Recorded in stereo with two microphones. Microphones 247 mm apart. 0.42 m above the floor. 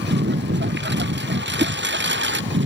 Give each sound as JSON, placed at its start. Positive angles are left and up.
{"t": 0.0, "sound": "a lawn mower", "side_deg": -45}
{"t": 1.6, "sound": "a whoosh", "side_deg": -30}